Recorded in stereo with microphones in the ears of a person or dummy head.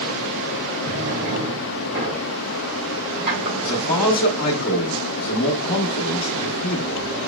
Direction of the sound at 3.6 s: 75° left (ahead or behind).